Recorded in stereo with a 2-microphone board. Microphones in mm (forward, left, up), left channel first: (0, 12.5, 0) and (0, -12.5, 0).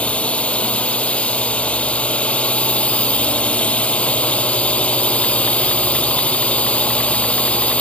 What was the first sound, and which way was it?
A drone, 55° left (ahead or behind).